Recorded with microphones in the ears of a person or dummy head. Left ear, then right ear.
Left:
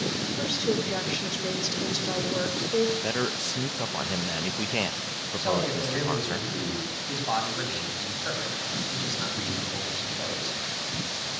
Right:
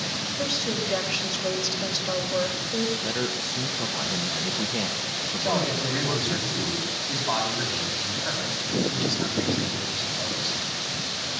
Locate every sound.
0.4 s a woman speaking: 25° left (ahead or behind), 5.5 m
3.0 s a man speaking: 60° left (ahead or behind), 1.2 m
5.4 s a man speaking: 20° left (ahead or behind), 8 m